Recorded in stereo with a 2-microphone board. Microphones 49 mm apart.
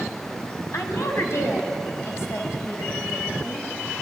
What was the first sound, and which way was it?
A woman speaking, 65° left (ahead or behind).